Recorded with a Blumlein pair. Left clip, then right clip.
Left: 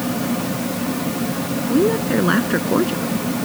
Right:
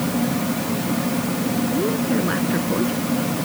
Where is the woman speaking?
70° left.